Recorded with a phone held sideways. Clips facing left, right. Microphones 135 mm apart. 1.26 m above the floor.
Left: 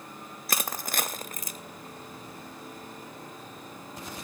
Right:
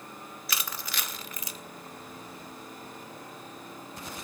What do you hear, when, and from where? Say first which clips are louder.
0.5 s crushing: left 6 dB; 45° left (ahead or behind), 0.7 m